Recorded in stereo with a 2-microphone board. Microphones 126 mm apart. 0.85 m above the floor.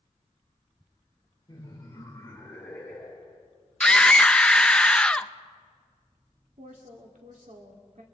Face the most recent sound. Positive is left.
turn(degrees=-70)  # may be behind; listen again after turning